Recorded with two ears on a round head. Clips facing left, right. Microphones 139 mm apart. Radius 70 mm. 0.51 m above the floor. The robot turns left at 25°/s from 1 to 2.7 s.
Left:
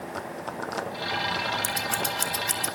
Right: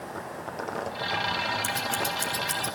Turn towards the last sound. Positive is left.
turn(degrees=30)  # may be behind; listen again after turning